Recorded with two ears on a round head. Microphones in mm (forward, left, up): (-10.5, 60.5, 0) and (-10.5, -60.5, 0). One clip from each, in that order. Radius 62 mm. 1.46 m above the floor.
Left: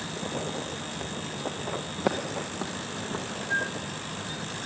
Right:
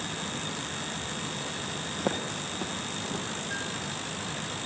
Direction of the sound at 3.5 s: 5° left (ahead or behind).